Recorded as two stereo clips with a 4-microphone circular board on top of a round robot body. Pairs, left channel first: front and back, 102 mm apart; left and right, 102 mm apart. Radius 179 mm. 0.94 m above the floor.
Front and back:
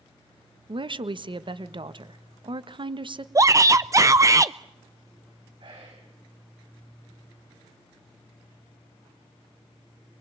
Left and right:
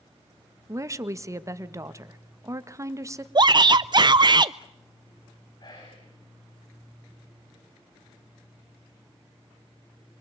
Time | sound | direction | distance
0.7 | a woman speaking | 150° right | 1.7 m
3.4 | a shout | 125° right | 0.6 m
5.6 | whispering | 140° left | 6.5 m